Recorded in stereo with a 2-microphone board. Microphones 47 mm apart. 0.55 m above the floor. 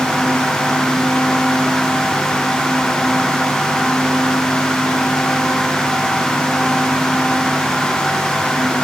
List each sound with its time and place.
Only background noise.